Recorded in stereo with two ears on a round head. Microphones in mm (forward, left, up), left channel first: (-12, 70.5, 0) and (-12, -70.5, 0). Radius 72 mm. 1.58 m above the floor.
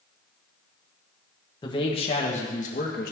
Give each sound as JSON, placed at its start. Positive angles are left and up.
{"t": 1.6, "sound": "a man speaking", "side_deg": 30, "distance_m": 1.6}